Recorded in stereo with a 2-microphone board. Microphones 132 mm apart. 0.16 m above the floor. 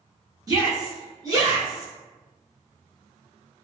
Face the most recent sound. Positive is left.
turn(degrees=-30)  # may be behind; listen again after turning